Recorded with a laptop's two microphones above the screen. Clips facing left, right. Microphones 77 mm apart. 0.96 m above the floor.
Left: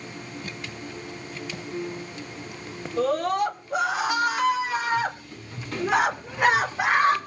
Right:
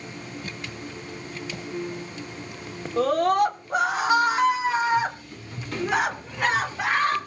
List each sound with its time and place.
3.0 s a scream: 55° right (ahead or behind), 2.5 m; by 7.2 s 20° left (ahead or behind), 2.5 m